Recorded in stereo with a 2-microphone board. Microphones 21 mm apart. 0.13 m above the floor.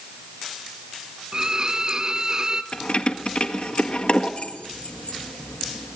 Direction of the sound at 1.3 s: 35° right (ahead or behind).